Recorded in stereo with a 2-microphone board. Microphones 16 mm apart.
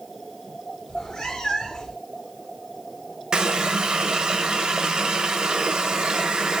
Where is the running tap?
65° right (ahead or behind), 0.9 m.